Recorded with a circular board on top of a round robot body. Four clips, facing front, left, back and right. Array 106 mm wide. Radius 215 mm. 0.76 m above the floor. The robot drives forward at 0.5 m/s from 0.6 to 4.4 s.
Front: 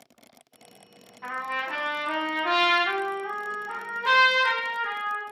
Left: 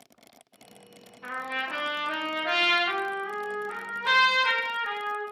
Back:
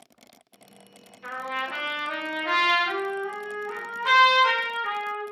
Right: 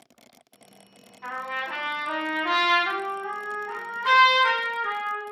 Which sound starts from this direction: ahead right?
A trumpet, at 1.2 s.